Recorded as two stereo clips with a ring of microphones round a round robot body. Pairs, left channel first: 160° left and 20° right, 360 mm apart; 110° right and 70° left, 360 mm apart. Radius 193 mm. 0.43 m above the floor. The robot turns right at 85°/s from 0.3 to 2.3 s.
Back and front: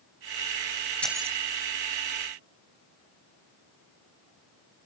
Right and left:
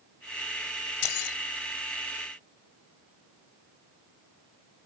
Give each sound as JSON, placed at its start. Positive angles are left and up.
{"t": 1.0, "sound": "keys jangling", "azimuth_deg": -115}